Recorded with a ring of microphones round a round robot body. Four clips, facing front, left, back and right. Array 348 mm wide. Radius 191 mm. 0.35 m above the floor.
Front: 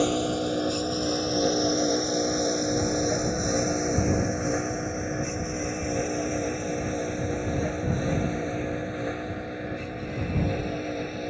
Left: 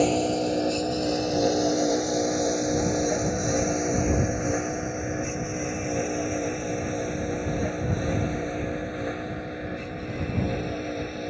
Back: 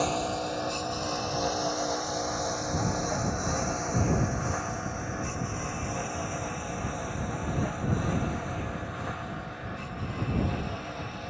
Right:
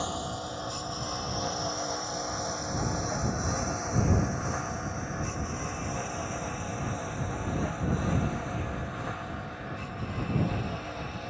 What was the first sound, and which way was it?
A lawn mower, 55° left.